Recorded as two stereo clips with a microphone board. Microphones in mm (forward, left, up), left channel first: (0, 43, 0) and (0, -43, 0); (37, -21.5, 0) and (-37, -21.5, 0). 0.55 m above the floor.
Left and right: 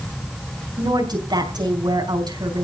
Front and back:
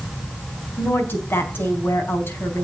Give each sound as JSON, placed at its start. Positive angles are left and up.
{"t": 0.8, "sound": "a woman speaking", "azimuth_deg": -60, "distance_m": 4.5}